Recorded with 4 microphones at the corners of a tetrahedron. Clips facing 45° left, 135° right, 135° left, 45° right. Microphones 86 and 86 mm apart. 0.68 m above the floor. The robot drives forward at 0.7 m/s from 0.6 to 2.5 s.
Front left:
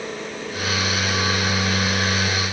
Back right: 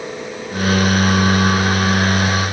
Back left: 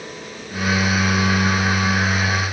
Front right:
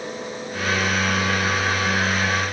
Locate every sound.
Only background noise.